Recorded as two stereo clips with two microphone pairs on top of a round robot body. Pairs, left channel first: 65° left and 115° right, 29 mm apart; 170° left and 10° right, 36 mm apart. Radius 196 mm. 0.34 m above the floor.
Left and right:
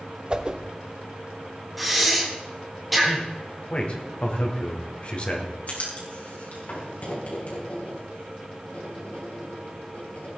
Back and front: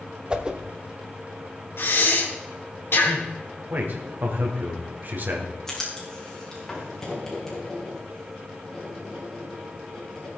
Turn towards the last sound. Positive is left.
turn(degrees=95)